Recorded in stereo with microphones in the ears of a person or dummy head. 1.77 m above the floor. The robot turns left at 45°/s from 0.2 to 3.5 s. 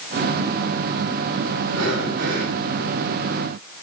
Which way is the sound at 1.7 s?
90° right.